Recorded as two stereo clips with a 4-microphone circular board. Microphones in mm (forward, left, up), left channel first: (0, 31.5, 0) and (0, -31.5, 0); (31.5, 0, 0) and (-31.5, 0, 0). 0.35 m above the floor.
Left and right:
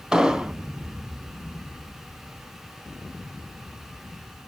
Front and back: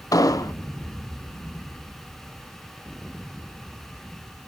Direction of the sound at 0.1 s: 10° right.